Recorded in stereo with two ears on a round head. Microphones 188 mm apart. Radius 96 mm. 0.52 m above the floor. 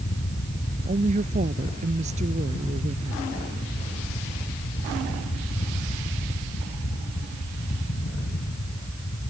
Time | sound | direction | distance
0.8 | a woman speaking | 35° right (ahead or behind) | ?